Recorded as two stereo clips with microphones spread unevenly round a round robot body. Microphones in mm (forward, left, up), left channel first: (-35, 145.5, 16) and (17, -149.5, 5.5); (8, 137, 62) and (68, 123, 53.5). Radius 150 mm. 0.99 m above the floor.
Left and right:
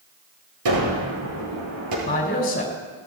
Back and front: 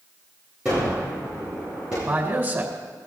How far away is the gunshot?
About 8 m.